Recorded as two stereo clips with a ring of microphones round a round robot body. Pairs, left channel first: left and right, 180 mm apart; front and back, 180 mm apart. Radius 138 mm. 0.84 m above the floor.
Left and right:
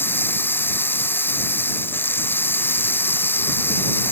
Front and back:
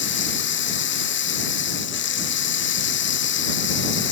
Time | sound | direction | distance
0.0 | running water | 10° left | ?